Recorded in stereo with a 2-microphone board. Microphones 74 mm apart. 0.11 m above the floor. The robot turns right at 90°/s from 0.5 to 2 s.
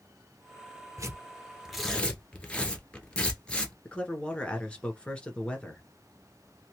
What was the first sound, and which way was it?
Tearing paper, 45° right (ahead or behind).